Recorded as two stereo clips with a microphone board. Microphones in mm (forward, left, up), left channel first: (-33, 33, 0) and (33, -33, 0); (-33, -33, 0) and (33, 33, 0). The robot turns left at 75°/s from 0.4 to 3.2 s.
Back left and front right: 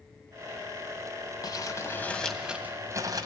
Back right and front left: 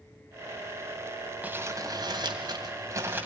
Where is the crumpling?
115° left, 2 m; by 3.2 s 20° right, 2 m.